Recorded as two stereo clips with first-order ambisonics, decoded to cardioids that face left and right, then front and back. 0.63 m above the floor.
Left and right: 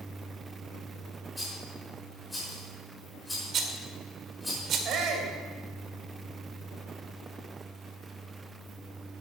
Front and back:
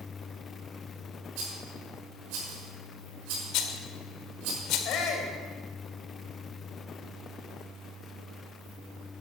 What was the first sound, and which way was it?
A rattle, 175° left.